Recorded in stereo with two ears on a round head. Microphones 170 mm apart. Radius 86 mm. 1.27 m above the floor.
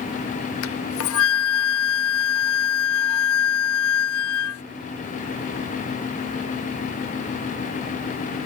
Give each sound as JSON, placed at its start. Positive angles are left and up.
{"t": 0.6, "sound": "a flute", "side_deg": 75}